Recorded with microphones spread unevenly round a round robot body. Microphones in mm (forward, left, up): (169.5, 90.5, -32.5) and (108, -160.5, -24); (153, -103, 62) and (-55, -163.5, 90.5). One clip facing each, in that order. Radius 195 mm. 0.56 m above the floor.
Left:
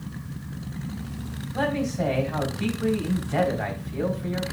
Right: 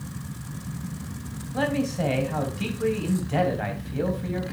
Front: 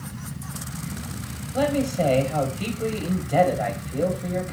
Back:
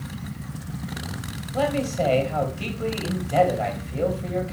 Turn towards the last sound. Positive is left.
turn(degrees=-55)